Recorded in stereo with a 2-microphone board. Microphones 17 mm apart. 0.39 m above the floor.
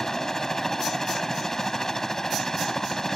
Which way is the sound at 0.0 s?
20° left (ahead or behind).